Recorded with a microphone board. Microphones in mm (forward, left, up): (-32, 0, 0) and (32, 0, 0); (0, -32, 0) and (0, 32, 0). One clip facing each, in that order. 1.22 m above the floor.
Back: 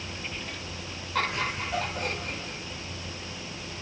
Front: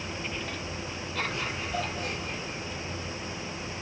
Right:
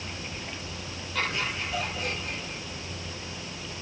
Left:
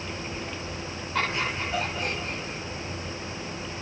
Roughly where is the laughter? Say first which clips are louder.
Back 5 dB, left 2 dB; behind left.